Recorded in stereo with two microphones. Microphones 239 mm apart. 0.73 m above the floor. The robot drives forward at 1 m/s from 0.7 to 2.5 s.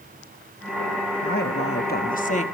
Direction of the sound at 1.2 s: 40° left (ahead or behind).